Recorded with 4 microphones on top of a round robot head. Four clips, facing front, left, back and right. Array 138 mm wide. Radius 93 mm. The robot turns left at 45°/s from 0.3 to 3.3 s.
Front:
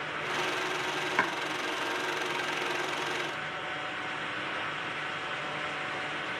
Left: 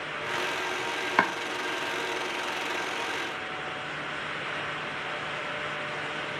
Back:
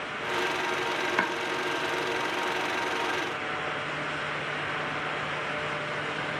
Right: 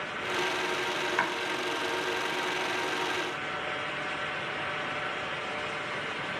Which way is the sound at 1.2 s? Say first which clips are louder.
Left 7 dB, even; 100° left.